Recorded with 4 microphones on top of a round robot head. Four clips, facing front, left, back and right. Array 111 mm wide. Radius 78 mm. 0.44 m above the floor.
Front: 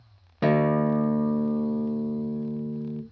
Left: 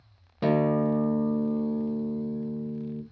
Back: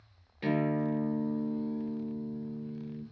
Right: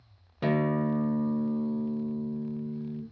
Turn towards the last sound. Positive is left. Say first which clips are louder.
# left 3 dB, front 8 dB
turn(degrees=20)